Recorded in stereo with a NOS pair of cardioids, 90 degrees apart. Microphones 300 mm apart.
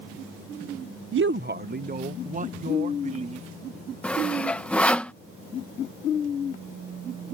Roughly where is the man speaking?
Ahead right.